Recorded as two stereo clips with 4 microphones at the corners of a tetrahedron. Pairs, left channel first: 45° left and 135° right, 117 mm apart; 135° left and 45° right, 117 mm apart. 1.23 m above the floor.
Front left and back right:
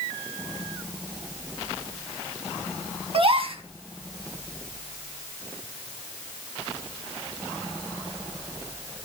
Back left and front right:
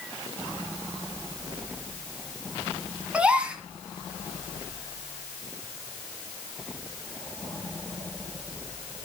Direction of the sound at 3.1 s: 125° right.